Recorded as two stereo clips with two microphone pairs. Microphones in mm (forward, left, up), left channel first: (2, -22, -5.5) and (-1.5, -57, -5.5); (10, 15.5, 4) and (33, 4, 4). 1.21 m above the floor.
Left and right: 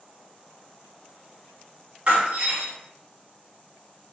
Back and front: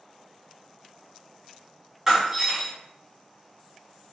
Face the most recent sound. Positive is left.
turn(degrees=-85)